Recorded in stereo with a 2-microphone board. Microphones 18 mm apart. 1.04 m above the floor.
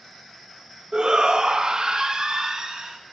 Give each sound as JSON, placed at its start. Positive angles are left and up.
{"t": 0.9, "sound": "a shout", "side_deg": -50, "distance_m": 1.1}